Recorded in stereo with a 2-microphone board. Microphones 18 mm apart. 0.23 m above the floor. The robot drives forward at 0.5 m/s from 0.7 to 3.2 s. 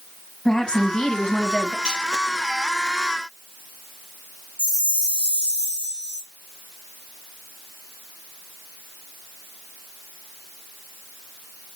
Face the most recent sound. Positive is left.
turn(degrees=-60)  # may be behind; listen again after turning